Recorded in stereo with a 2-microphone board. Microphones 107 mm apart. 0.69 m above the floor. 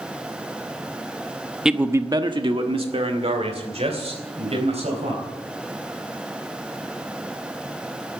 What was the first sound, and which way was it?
A man speaking, 5° right (ahead or behind).